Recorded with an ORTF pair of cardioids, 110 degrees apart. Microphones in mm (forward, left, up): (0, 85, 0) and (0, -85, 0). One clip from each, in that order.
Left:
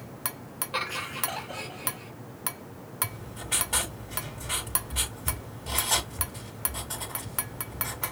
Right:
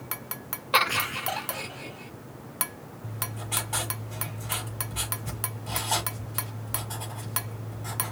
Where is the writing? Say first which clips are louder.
Right 1 dB; 25° left, 4 m.